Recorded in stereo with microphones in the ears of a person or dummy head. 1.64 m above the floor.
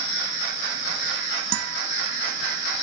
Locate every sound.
1.5 s a guitar: 85° right